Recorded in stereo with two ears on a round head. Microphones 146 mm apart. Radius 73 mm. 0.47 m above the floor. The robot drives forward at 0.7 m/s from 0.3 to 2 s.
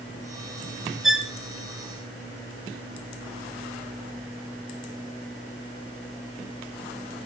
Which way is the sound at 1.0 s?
Centre (ahead or behind).